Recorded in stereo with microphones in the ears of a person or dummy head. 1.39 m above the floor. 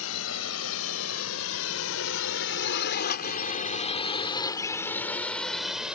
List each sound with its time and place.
0.0 s a drone: 80° left; by 6.0 s 5° right (ahead or behind)